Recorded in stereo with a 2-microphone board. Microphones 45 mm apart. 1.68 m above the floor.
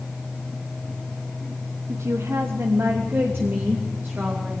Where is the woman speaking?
85° right, 1.3 m; by 4.5 s 45° right (ahead or behind), 3 m.